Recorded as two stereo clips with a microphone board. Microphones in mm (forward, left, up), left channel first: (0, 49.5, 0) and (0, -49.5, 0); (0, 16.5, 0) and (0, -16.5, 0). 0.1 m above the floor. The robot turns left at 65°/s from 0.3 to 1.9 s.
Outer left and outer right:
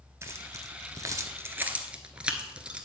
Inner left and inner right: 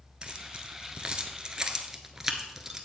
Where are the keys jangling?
30° right (ahead or behind), 0.9 m; by 2.9 s 10° right (ahead or behind), 0.9 m.